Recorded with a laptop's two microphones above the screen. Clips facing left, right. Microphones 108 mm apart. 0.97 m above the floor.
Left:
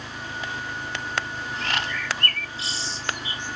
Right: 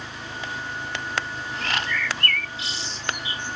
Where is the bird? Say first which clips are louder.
Right 2 dB; 35° left (ahead or behind).